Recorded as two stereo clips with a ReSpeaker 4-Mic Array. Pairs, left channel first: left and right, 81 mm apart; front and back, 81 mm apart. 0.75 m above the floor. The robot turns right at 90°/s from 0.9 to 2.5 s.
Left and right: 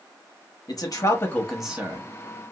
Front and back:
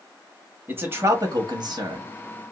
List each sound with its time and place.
0.7 s a man speaking: 120° left, 1.1 m; by 2.1 s 130° right, 1.1 m